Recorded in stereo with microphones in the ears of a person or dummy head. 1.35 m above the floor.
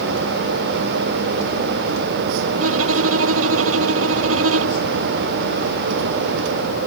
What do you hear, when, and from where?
2.6 s a violin: 80° right